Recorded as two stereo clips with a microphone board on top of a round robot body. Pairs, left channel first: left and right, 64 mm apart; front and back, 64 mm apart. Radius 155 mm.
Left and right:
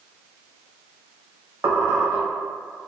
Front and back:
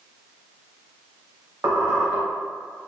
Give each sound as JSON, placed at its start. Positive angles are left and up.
{"t": 1.6, "sound": "a squeak", "azimuth_deg": -140, "distance_m": 1.4}